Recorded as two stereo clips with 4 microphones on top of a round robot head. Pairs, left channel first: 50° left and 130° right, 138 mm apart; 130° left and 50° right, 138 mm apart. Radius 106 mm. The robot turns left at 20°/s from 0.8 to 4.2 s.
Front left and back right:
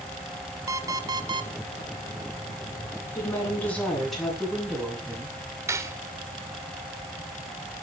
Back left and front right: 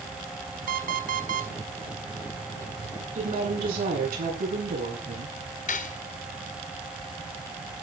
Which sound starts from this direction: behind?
Cutlery clinking, at 5.7 s.